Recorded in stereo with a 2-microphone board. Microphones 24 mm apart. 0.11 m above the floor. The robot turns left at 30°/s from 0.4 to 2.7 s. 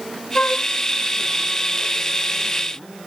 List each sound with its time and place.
0.3 s a flute: 60° left (ahead or behind); by 0.7 s 50° left (ahead or behind)